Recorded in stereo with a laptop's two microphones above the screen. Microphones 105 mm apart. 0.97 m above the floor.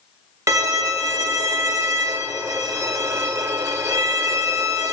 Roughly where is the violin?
Right.